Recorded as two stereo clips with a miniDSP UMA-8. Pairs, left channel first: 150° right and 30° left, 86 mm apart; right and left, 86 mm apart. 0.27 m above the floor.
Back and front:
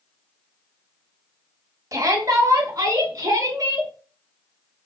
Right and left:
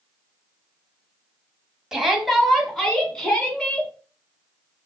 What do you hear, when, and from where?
1.9 s a shout: 5° left, 1.4 m; by 3.9 s 10° right, 3 m